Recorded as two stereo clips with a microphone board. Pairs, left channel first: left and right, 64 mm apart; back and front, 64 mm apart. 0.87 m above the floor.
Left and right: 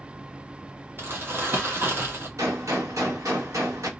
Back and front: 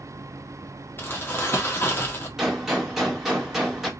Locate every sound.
1.0 s crumpling: 135° right, 1.4 m
2.4 s a gunshot: 85° right, 1.4 m